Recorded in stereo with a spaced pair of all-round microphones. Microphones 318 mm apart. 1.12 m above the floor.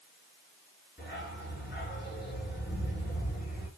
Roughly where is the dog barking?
Left.